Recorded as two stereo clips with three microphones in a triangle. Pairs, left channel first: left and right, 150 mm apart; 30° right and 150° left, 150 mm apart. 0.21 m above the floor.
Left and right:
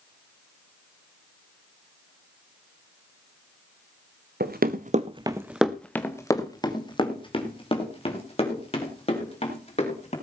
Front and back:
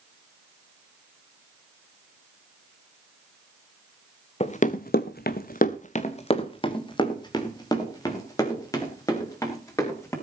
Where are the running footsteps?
80° right, 1.3 m; by 10.1 s 40° left, 7 m.